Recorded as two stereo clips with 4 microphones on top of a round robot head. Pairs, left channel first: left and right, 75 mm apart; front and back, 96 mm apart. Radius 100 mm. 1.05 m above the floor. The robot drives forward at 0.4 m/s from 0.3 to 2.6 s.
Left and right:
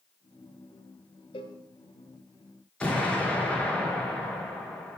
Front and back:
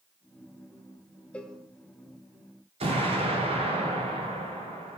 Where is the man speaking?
No man speaking in this recording.